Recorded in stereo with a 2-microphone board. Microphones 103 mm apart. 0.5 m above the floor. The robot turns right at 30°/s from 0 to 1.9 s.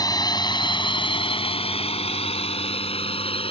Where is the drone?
40° left (ahead or behind); by 3.5 s 65° left (ahead or behind).